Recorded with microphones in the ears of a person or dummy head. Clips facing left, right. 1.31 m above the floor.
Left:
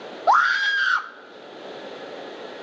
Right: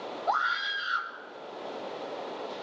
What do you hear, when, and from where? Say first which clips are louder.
0.3 s a scream: left 12 dB; 75° left (ahead or behind), 1.3 m